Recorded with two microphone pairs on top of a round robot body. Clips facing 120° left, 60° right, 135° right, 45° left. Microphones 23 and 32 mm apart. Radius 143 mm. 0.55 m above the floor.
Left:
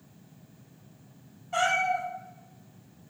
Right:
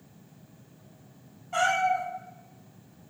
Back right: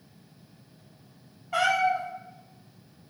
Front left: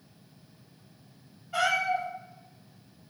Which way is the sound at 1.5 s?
155° right.